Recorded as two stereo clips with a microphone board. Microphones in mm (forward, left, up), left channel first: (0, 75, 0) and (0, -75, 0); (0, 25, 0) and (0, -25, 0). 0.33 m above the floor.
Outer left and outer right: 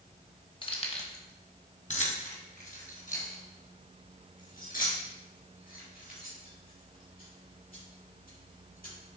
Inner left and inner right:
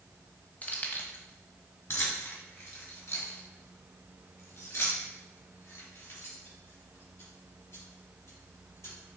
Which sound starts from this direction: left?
Keys jangling, at 0.6 s.